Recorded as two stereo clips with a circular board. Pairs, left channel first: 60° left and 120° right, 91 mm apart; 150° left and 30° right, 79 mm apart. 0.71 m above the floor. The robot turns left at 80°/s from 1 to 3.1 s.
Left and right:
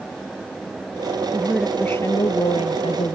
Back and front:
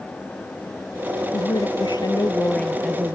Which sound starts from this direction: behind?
A woman speaking, at 1.3 s.